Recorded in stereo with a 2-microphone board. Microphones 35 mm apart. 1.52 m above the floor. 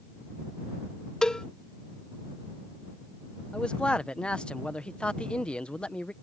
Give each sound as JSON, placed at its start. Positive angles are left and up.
{"t": 1.2, "sound": "a cowbell", "side_deg": 25}
{"t": 3.5, "sound": "a man speaking", "side_deg": 30}